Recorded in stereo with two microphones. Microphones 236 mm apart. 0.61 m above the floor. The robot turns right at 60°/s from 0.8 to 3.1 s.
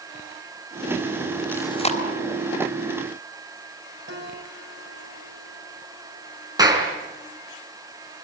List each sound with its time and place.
1.5 s chewing: 5° left (ahead or behind), 3 m; by 2.0 s 35° left (ahead or behind), 3 m
4.1 s a piano: 55° right (ahead or behind), 5 m
6.6 s a clap: 15° right (ahead or behind), 5 m